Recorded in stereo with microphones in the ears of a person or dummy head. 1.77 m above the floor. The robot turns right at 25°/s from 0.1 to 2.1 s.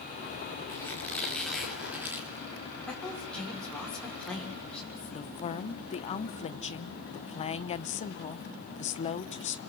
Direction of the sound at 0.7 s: 150° left.